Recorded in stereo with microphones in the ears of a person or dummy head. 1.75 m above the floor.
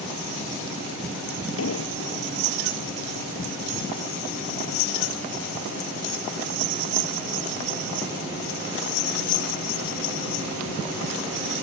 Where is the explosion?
80° left.